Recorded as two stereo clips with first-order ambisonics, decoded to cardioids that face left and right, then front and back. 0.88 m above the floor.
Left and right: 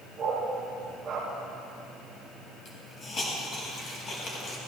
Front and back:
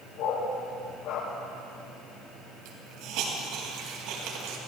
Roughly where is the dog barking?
Ahead.